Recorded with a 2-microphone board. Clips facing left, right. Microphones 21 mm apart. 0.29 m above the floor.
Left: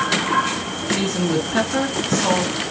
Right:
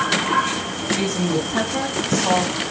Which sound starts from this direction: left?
A woman speaking, at 0.9 s.